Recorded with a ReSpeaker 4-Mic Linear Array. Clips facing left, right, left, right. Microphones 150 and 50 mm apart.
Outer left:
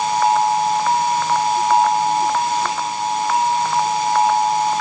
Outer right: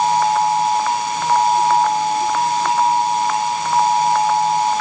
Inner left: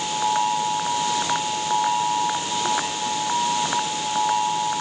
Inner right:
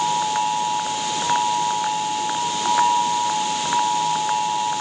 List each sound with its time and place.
Only background noise.